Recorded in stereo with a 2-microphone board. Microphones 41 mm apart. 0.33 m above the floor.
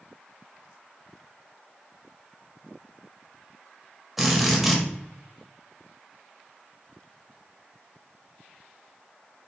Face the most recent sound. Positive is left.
turn(degrees=-5)  # may be behind; listen again after turning